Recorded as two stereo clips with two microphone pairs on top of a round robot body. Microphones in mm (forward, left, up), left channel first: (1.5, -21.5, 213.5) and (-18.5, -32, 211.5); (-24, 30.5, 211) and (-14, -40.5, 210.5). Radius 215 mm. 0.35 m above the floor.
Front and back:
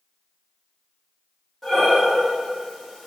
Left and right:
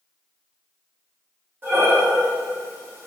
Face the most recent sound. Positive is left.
turn(degrees=-40)